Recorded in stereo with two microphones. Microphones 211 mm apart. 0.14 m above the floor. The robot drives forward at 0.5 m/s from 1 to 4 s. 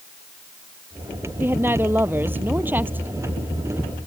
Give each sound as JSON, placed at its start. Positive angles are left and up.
{"t": 1.4, "sound": "a woman speaking", "side_deg": -10}